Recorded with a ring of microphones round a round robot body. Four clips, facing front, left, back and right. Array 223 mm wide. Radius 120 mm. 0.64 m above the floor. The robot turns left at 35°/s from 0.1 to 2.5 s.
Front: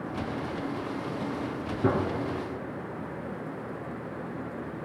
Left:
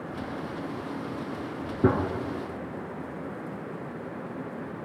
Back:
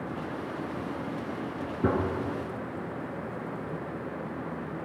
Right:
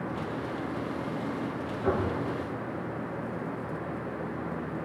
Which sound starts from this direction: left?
A gunshot, at 1.8 s.